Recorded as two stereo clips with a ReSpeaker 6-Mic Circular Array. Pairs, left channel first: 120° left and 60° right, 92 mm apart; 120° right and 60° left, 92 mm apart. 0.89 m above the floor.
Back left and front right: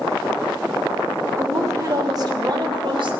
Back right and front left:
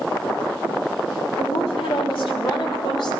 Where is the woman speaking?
120° right, 2.5 m; by 3.2 s 85° right, 2.5 m.